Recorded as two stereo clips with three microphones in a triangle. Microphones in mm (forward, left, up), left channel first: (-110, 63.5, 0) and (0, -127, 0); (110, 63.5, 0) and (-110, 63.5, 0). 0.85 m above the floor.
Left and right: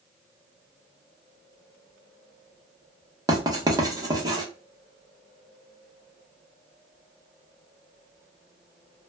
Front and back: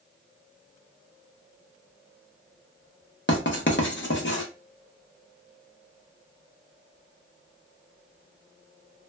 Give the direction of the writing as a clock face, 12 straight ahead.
12 o'clock.